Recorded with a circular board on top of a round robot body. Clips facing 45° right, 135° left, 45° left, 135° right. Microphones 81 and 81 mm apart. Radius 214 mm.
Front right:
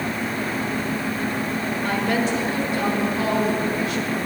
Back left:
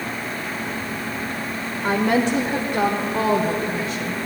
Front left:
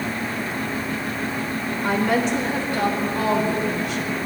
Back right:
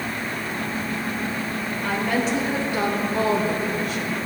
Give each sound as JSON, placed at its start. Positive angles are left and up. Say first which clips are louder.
{"t": 1.8, "sound": "a woman speaking", "louder": "back left 5 dB, front left 3 dB", "azimuth_deg": 120, "distance_m": 1.4}